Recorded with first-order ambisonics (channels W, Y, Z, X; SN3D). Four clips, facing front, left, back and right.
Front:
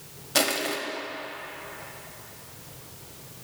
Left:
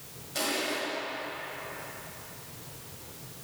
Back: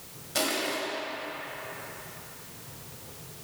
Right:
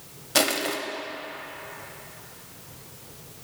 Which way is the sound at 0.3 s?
65° right.